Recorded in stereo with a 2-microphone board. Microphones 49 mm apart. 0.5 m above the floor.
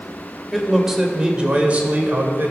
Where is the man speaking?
Centre (ahead or behind), 1.8 m; by 2.5 s 45° right (ahead or behind), 2.0 m.